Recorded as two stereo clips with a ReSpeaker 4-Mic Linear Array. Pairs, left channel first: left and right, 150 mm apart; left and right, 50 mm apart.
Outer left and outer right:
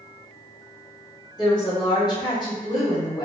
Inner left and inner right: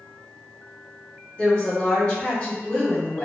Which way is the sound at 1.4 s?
30° left (ahead or behind).